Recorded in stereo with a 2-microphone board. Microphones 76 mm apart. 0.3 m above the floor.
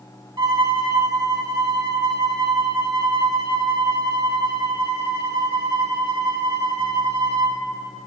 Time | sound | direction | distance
0.4 | a violin | 75° right (ahead or behind) | 0.8 m